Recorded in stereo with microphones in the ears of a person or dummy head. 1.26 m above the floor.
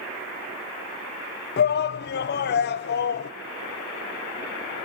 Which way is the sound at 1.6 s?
50° left (ahead or behind).